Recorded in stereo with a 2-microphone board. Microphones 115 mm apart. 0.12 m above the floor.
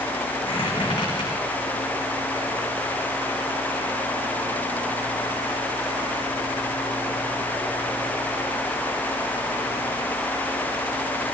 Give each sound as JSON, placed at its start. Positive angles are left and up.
{"t": 0.4, "sound": "a squeak", "side_deg": 45, "distance_m": 5.5}